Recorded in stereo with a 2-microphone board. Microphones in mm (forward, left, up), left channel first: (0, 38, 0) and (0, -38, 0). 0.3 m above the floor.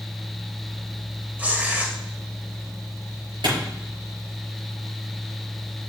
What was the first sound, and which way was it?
Tearing paper, 20° right (ahead or behind).